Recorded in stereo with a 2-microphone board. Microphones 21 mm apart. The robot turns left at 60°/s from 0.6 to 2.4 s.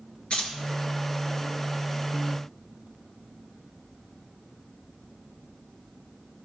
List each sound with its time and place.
0.3 s keys jangling: 60° left (ahead or behind), 2 m